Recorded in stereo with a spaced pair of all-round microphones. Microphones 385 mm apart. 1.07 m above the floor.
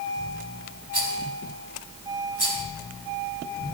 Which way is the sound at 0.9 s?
80° right.